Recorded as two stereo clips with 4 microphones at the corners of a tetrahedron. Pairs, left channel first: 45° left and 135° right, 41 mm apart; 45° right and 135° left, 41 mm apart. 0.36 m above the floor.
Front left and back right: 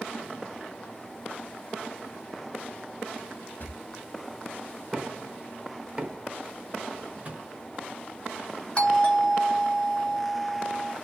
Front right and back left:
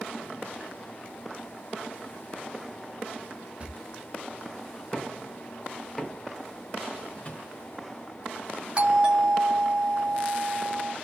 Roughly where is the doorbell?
Left.